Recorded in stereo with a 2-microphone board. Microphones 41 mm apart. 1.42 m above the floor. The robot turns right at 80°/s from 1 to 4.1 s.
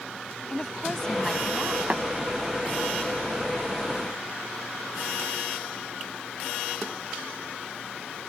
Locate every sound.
0.5 s a woman speaking: 155° left; by 1.8 s 140° right
1.9 s tapping: 40° right (ahead or behind); by 2.0 s 30° right (ahead or behind)